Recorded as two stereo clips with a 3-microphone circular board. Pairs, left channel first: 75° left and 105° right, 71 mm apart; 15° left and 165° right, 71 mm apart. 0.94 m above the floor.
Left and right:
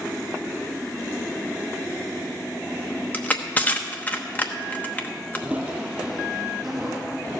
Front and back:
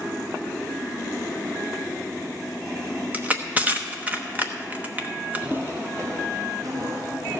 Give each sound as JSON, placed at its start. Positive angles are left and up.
{"t": 3.1, "sound": "crushing", "azimuth_deg": 135, "distance_m": 0.9}
{"t": 5.3, "sound": "footsteps", "azimuth_deg": -140, "distance_m": 1.0}